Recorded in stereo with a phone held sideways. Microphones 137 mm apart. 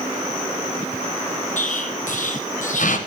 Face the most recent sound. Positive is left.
turn(degrees=75)  # may be behind; listen again after turning